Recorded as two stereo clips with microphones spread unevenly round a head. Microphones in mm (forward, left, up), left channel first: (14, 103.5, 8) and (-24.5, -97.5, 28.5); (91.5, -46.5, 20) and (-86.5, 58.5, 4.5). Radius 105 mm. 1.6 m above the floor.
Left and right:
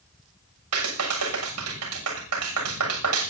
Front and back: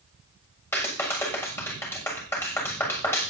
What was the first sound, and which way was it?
A clap, 110° right.